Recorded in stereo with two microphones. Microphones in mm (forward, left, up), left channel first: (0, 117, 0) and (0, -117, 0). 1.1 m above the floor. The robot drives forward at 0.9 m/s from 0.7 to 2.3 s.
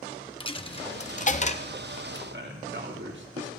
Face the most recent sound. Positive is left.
turn(degrees=-55)  # may be behind; listen again after turning